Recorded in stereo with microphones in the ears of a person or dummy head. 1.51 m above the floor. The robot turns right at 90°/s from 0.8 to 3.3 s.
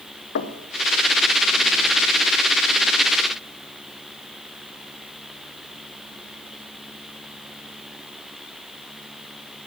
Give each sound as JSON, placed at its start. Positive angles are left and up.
{"t": 0.3, "sound": "knocking", "side_deg": 65, "distance_m": 0.7}